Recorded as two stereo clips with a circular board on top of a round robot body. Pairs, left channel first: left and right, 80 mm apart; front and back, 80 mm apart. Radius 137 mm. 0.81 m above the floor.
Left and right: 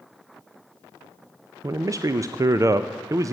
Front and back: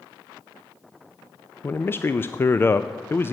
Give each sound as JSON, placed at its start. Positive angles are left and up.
{"t": 1.6, "sound": "a man speaking", "azimuth_deg": -55, "distance_m": 0.6}